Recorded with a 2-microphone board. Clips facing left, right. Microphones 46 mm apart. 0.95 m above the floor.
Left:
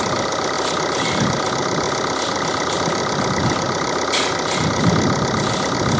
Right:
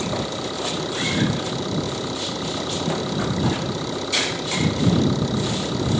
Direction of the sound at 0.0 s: 70° left (ahead or behind).